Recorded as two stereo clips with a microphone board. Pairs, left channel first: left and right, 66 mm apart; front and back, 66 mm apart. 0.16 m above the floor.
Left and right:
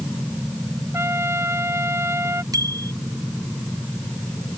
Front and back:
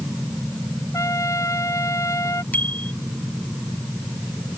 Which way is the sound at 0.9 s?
40° right.